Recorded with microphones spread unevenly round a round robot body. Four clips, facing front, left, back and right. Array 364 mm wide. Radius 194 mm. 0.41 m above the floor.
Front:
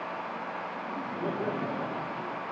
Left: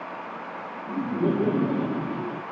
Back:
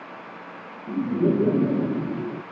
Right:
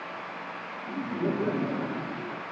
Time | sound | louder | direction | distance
0.9 | laughter | left 5 dB, back 13 dB | 160° left | ?